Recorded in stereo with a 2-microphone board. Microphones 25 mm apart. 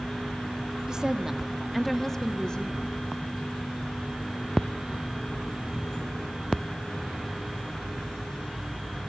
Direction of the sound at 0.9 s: 30° right (ahead or behind).